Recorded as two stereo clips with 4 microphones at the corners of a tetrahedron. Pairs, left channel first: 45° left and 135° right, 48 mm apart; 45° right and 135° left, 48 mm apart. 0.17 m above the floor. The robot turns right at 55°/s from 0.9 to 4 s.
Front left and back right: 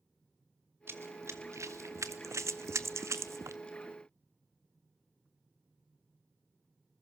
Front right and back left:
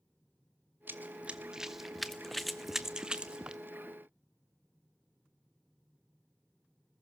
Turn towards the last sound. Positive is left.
turn(degrees=-125)